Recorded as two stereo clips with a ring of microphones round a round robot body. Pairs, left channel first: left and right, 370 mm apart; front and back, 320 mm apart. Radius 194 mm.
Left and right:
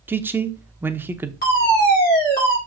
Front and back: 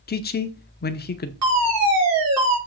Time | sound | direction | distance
0.1 | a man speaking | 10° right | 0.7 m
1.4 | a fire alarm | 150° left | 4.5 m